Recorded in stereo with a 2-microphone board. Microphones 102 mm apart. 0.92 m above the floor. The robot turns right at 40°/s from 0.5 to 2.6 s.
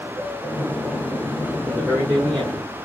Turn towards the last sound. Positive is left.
turn(degrees=-145)